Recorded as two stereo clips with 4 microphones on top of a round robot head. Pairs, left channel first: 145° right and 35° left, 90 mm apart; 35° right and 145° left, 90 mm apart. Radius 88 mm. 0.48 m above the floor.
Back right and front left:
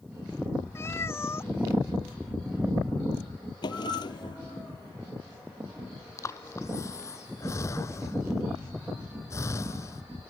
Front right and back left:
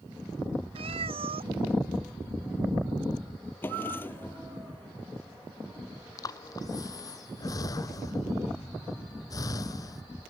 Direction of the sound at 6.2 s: 85° right.